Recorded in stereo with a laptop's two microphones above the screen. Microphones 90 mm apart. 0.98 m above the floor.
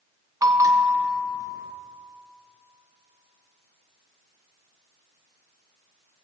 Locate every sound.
0.4 s a bell: 40° right (ahead or behind), 0.9 m